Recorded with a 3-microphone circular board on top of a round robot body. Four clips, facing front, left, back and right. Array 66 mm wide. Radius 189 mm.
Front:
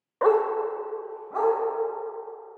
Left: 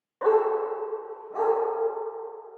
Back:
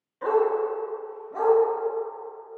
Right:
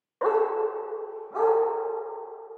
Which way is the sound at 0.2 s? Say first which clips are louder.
Left 1 dB, front 1 dB; 15° right.